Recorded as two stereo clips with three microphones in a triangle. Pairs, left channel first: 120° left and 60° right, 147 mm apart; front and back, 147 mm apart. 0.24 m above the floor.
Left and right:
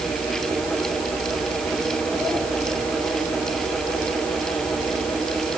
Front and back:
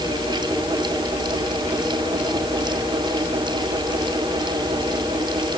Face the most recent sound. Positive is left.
No sound to turn to.